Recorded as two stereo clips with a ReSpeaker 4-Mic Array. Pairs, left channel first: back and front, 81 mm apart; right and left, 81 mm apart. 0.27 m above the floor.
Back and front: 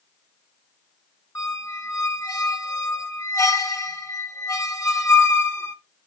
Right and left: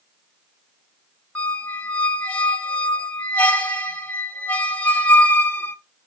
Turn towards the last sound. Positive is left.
turn(degrees=-160)